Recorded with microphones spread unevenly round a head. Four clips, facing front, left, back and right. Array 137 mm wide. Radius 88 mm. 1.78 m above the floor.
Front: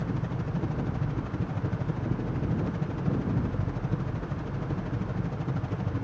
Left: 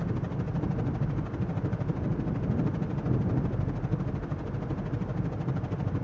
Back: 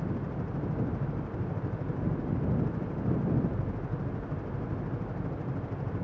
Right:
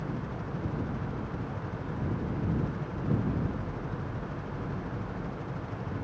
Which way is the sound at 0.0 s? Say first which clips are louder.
Left 3 dB, front 2 dB; 40° left.